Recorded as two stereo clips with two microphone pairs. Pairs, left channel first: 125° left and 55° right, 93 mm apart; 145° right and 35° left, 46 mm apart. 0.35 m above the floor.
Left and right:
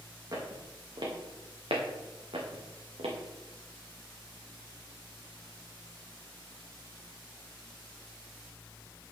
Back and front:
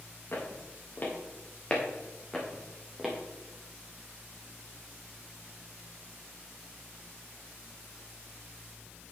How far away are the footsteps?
About 3 m.